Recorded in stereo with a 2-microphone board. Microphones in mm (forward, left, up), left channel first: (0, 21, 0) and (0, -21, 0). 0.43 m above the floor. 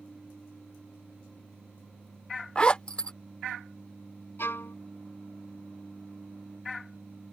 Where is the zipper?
25° left (ahead or behind).